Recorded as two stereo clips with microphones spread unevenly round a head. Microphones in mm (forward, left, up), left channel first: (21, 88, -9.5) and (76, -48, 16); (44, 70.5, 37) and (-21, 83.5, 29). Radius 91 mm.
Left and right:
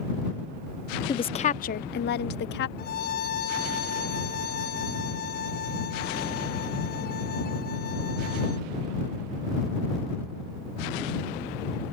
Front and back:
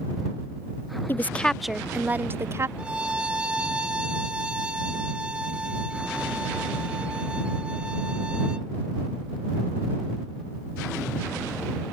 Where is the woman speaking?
45° left; by 2.7 s 120° left.